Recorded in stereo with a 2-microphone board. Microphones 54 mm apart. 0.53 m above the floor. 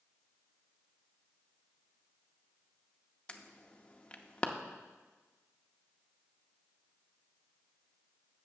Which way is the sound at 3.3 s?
20° left (ahead or behind).